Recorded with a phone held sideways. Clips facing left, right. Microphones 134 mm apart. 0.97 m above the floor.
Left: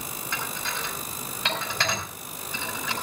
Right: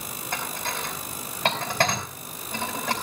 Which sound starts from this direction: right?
Dishes clattering, at 0.3 s.